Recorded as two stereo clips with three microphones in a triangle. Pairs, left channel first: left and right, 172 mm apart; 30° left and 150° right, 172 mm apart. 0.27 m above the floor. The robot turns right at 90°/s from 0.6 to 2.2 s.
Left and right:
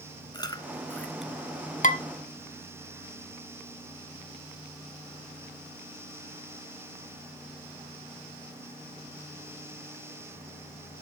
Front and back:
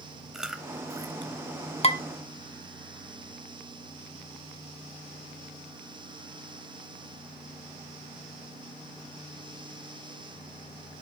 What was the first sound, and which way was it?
Chewing, 125° left.